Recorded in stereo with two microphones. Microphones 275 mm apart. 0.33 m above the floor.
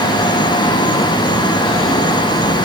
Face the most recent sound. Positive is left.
No sound to turn to.